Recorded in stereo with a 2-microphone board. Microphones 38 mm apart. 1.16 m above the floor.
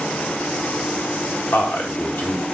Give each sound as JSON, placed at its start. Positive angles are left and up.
{"t": 1.5, "sound": "a man speaking", "side_deg": 70, "distance_m": 2.0}